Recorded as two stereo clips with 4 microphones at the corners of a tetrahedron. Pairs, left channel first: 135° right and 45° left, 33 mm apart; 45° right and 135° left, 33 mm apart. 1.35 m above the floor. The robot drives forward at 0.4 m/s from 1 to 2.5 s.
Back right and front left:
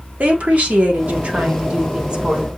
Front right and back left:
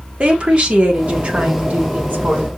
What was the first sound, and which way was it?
A woman speaking, 85° left.